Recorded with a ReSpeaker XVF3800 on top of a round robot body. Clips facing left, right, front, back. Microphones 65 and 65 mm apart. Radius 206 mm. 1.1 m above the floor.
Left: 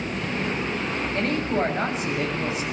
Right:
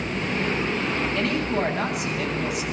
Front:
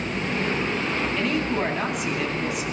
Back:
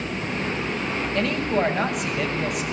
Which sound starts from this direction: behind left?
A woman speaking, at 1.1 s.